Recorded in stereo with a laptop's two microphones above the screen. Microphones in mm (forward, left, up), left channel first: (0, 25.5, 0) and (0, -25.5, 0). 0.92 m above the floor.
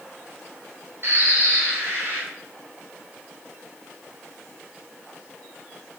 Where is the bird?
55° right (ahead or behind), 1.2 m.